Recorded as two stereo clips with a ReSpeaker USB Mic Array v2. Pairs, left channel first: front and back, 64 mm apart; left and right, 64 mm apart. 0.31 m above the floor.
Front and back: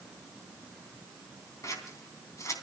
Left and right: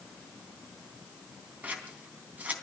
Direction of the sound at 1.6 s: 25° right.